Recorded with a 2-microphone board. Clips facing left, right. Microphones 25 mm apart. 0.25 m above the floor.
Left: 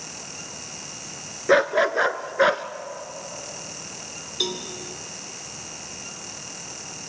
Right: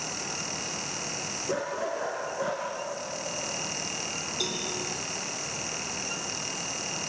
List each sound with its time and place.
1.5 s a dog barking: 75° left (ahead or behind), 1.3 m; by 2.6 s 65° left (ahead or behind), 1.2 m
4.4 s a cowbell: 30° left (ahead or behind), 2 m